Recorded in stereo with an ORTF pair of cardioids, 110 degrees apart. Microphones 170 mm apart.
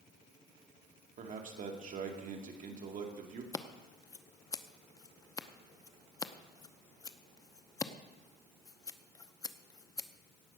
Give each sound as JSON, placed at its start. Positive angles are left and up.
{"t": 1.2, "sound": "a man speaking", "azimuth_deg": -50, "distance_m": 2.5}
{"t": 3.5, "sound": "scissors", "azimuth_deg": 20, "distance_m": 0.7}